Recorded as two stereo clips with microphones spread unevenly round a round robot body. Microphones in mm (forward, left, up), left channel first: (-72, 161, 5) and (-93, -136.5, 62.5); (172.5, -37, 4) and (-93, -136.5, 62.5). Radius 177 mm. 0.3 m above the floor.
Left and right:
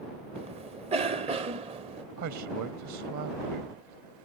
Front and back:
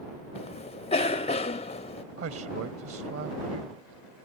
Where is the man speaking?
120° right.